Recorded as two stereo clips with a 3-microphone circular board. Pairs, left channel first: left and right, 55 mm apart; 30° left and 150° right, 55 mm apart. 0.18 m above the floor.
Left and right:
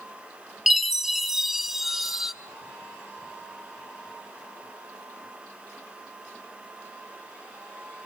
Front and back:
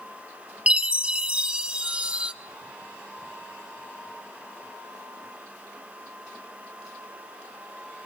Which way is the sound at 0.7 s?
170° right.